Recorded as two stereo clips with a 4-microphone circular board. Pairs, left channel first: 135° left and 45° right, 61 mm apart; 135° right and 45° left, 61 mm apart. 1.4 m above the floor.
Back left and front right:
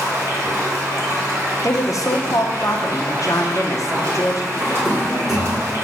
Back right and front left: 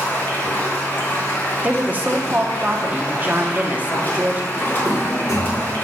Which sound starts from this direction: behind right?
A drawer, at 4.5 s.